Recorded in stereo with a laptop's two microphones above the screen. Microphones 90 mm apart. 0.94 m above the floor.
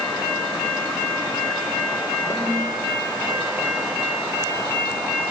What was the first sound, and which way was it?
A snare drum, 35° left (ahead or behind).